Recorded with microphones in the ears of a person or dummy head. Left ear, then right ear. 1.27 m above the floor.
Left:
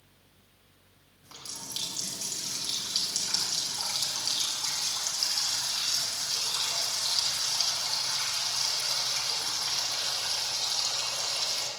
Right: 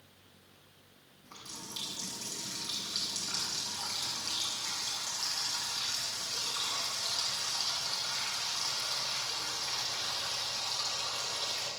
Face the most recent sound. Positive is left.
turn(degrees=80)